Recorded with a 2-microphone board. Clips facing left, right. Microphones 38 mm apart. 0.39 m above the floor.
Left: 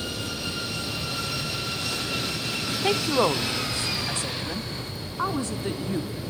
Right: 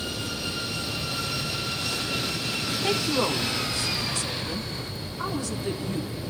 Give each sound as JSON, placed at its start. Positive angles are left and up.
{"t": 2.8, "sound": "a woman speaking", "side_deg": 20, "distance_m": 0.8}